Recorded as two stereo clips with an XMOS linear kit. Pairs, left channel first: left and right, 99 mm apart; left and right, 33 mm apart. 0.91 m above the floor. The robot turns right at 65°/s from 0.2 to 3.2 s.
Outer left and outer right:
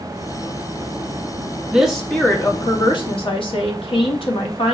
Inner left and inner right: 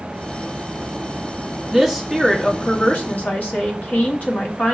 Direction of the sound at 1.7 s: 15° right.